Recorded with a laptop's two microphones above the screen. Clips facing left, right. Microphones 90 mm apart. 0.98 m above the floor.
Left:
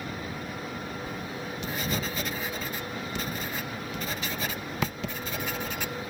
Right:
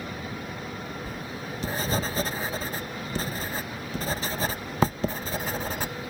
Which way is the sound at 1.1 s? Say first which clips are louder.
Even; 35° right (ahead or behind).